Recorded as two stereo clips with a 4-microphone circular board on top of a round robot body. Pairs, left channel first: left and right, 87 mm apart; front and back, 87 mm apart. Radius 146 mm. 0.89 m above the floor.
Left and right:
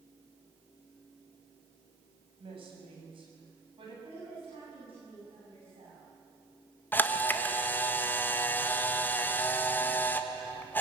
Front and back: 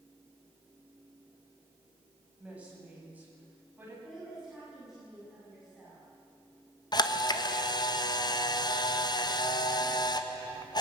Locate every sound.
2.4 s a woman speaking: 105° right, 8 m; by 3.9 s 110° right, 9 m
4.0 s a woman speaking: 95° right, 7.5 m
6.9 s a camera shutter: 25° left, 1.6 m